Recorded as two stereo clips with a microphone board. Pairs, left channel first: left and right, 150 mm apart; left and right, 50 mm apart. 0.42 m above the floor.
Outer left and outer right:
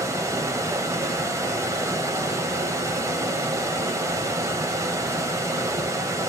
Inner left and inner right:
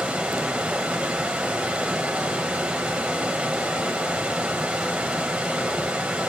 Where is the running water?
20° right (ahead or behind), 1.2 m.